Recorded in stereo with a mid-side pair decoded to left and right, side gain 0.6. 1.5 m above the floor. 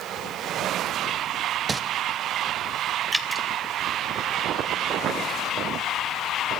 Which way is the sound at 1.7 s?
25° right.